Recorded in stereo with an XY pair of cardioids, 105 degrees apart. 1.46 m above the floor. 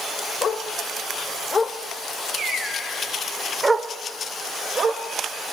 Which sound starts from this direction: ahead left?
A dog barking, at 0.4 s.